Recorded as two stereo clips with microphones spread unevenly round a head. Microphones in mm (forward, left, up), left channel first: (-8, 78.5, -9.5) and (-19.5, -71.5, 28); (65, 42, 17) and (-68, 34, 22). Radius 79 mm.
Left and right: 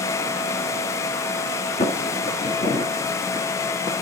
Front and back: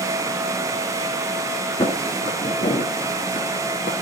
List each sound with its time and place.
1.8 s footsteps: 35° left, 1.2 m; by 3.9 s 10° left, 1.9 m